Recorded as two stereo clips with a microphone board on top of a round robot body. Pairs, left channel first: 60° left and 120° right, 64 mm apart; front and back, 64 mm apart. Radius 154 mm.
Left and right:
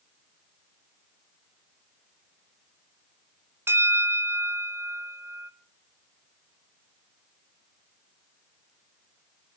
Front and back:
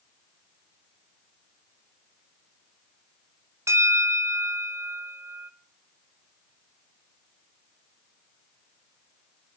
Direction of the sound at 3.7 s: 155° right.